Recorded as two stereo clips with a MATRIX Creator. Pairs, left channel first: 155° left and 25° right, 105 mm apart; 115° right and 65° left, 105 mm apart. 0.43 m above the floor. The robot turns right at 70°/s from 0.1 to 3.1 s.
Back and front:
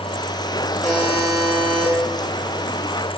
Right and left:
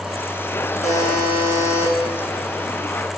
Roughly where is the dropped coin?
I don't hear a dropped coin.